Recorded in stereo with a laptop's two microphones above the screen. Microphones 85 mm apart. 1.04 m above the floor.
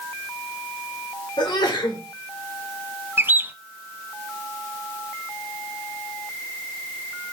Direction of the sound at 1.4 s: 65° left (ahead or behind).